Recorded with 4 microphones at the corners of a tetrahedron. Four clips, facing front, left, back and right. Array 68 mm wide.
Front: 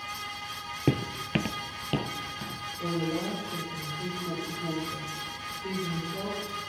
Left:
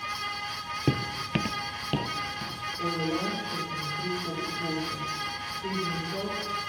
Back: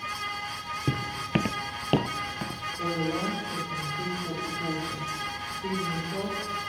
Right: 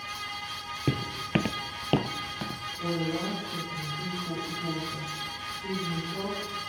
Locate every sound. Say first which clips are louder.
0.9 s footsteps: even, front 2 dB; 15° left, 0.6 m; by 2.6 s 145° right, 1.8 m
2.8 s a woman speaking: left 1 dB, back 1 dB; 160° left, 9.5 m